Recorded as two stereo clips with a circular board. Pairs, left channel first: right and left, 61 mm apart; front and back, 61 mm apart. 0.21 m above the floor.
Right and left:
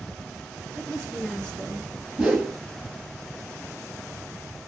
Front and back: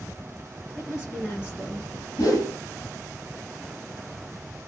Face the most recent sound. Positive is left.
turn(degrees=15)